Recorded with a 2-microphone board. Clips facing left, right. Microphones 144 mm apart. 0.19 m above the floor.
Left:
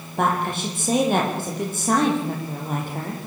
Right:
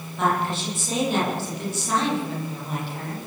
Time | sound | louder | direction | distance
0.2 | a woman speaking | left 1 dB | 55° left (ahead or behind) | 8.5 m